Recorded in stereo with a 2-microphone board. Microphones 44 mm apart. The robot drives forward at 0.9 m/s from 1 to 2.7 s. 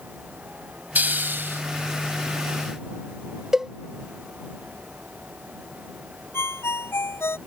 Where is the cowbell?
10° right (ahead or behind).